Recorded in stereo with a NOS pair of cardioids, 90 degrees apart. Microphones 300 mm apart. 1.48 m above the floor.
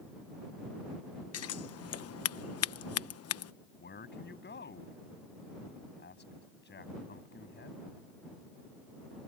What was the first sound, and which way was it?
Scissors, 55° left.